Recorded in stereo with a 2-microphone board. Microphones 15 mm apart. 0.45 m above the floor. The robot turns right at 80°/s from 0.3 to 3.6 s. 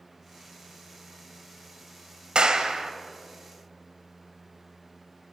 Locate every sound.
2.4 s a clap: 85° right, 2 m; by 2.9 s 40° right, 2 m